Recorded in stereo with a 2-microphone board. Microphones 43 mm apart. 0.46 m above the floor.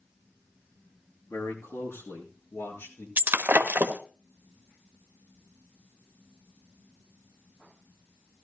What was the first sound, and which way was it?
A man speaking, 80° left.